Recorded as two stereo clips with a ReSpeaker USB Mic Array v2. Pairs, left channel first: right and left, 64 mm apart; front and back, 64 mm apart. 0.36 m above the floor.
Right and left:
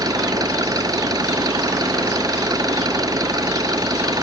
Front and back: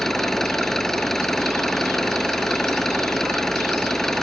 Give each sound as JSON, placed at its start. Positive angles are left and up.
{"t": 0.0, "sound": "an engine running", "azimuth_deg": 85}